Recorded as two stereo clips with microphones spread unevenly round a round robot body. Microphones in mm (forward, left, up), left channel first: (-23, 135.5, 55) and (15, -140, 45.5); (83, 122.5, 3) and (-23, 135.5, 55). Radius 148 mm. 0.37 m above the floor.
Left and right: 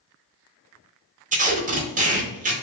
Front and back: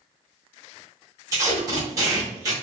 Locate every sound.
1.3 s tape being pulled: 105° right, 0.7 m